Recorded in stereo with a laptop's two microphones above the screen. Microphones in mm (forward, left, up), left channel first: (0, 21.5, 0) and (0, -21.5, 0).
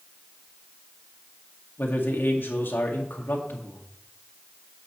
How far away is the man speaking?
About 1.8 m.